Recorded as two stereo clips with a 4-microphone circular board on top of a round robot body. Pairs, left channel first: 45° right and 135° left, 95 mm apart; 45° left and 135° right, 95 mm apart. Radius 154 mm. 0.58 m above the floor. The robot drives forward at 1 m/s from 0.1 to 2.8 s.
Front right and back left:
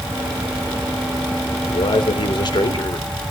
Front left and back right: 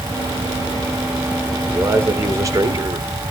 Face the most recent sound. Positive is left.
turn(degrees=-90)